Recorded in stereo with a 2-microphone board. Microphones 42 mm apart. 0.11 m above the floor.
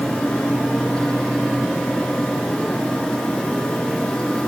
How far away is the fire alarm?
I don't hear a fire alarm.